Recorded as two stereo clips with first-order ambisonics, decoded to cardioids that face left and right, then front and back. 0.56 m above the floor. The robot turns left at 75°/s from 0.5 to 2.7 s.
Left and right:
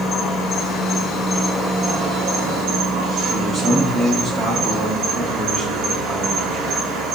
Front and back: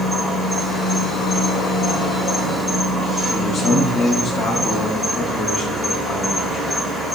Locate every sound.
0.0 s an insect: 60° left, 1.1 m; by 7.2 s 105° right, 1.1 m
3.3 s a man speaking: 25° right, 0.6 m